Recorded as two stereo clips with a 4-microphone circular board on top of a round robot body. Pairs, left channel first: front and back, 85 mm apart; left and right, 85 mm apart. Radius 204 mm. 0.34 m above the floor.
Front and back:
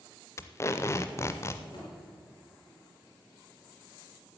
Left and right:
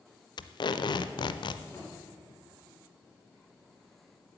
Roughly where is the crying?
I don't hear crying.